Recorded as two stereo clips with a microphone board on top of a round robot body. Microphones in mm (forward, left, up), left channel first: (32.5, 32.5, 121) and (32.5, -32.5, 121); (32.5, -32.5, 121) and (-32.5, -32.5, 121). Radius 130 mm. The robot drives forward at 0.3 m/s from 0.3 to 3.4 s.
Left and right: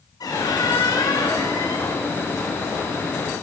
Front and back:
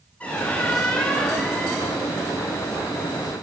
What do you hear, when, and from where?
0.2 s a squeak: 70° left, 4.5 m; by 2.0 s 80° left, 4.5 m